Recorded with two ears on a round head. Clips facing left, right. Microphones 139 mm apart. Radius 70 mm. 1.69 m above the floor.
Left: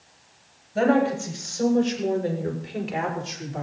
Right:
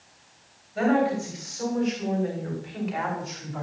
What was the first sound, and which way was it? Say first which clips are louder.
A woman speaking: left 2 dB; 40° left (ahead or behind).